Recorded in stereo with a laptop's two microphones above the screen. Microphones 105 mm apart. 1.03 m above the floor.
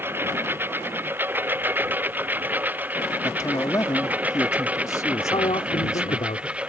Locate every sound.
0.0 s a lawn mower: 20° right (ahead or behind); by 6.7 s 10° right (ahead or behind)
3.2 s a man speaking: 30° left (ahead or behind)
5.2 s a man speaking: 70° left (ahead or behind)